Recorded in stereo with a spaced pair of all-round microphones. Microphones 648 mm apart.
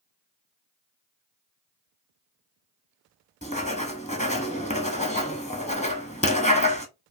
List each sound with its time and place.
3.4 s writing: 10° left (ahead or behind), 0.9 m